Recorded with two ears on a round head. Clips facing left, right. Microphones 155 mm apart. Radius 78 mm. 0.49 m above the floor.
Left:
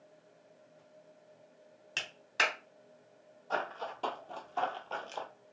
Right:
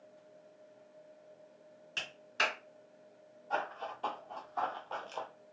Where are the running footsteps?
65° left (ahead or behind), 1.1 m; by 5.3 s 5° left (ahead or behind), 0.6 m.